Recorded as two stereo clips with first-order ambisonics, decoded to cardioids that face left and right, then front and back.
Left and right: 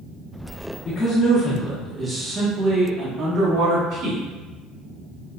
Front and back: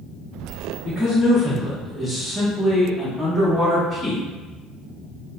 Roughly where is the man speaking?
Left.